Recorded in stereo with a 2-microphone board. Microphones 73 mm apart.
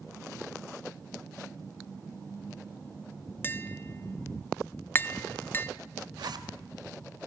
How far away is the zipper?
About 1.7 m.